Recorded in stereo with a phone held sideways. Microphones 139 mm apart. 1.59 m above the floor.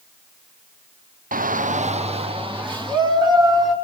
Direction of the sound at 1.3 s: 80° right.